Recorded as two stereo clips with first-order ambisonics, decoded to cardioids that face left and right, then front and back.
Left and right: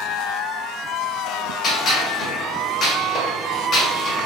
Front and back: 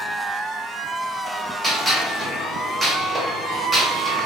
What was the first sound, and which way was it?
A gunshot, 90° left.